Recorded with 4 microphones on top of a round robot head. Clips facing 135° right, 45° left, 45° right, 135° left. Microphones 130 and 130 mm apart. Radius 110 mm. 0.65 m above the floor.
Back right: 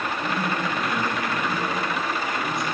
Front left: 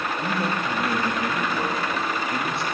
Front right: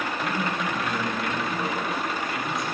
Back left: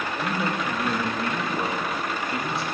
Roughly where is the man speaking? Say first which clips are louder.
Front left 1 dB, back left 3 dB; left.